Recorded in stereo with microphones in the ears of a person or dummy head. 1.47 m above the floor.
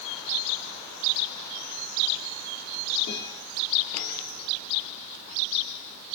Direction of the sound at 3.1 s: 60° left (ahead or behind).